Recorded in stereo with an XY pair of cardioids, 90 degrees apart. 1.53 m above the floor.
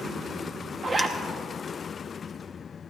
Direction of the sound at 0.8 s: 35° right.